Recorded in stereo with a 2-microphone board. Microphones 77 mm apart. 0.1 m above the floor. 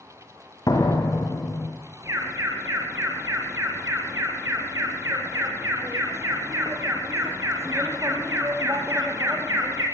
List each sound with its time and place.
0.7 s a door slam: 50° left (ahead or behind), 5 m
2.0 s an alarm: 35° right (ahead or behind), 5 m